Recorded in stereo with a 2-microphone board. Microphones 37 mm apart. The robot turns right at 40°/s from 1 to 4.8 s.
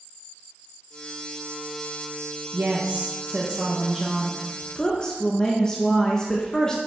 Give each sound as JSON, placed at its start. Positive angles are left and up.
{"t": 2.5, "sound": "a woman speaking", "azimuth_deg": -70, "distance_m": 1.2}